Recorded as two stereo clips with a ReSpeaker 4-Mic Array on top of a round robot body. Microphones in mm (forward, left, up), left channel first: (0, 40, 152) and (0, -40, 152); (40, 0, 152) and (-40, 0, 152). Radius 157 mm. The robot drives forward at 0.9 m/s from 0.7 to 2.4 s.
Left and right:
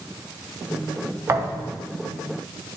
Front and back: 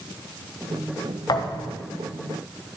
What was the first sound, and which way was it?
A thud, 35° right.